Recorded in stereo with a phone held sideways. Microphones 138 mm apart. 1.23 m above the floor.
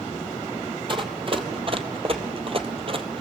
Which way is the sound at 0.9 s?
40° right (ahead or behind).